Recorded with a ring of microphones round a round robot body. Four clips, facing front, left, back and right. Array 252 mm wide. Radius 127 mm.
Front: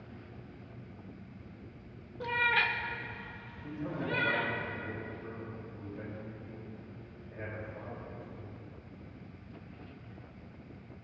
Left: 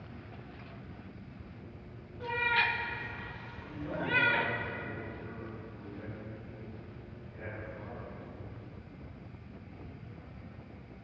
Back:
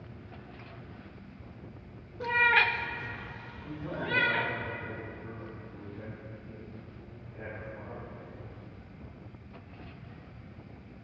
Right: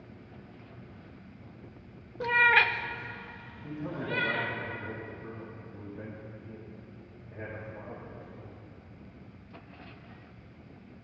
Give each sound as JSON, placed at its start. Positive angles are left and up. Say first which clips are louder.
{"t": 2.2, "sound": "a cat meowing", "louder": "right 7 dB, back 5 dB", "azimuth_deg": -95, "distance_m": 1.0}
{"t": 3.6, "sound": "a man speaking", "louder": "right 1 dB, even", "azimuth_deg": -40, "distance_m": 4.0}